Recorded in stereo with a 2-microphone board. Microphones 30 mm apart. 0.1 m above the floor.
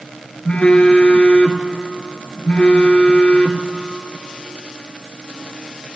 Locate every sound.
0.5 s a phone buzzing: 35° left (ahead or behind), 0.5 m